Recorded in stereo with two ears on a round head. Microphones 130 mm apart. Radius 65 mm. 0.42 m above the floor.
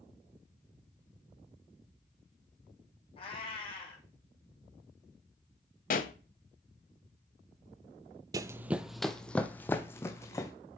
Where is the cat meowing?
35° left (ahead or behind), 3.5 m.